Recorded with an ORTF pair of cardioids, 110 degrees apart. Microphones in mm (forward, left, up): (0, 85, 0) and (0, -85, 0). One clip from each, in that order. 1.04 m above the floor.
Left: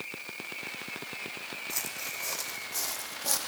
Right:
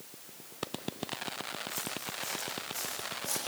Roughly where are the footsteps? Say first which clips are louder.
Left 2 dB; ahead left.